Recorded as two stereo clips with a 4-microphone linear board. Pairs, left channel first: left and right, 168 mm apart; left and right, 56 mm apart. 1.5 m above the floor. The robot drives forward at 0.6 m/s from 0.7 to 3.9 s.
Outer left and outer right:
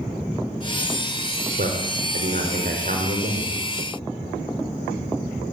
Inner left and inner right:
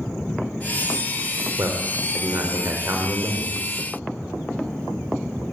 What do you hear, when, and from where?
1.6 s a man speaking: 60° right (ahead or behind), 4.5 m; by 3.5 s 45° right (ahead or behind), 5.5 m